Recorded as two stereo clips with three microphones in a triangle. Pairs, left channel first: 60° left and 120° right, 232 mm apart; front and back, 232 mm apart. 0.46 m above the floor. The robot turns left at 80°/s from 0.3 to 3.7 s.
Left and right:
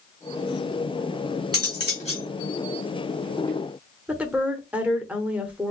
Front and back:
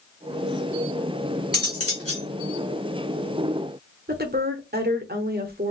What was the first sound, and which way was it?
Cutlery clinking, 40° left.